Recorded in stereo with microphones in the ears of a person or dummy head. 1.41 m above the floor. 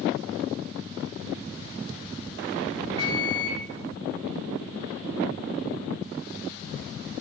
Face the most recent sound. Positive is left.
turn(degrees=-30)  # may be behind; listen again after turning